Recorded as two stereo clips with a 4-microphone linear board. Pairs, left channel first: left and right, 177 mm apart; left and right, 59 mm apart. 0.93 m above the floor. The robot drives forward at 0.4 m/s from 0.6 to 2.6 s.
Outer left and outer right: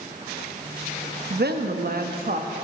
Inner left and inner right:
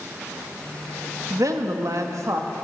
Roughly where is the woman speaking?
Right.